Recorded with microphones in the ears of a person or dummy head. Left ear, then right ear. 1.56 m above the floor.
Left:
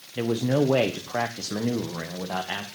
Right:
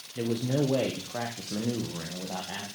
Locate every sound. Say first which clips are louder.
0.1 s a man speaking: left 5 dB; 35° left (ahead or behind), 1.2 m; by 2.7 s 75° left (ahead or behind), 1.9 m